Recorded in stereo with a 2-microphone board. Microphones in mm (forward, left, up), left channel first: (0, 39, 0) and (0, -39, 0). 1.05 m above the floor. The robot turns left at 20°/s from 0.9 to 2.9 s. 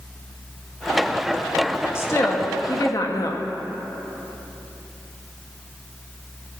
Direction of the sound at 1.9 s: 35° left (ahead or behind).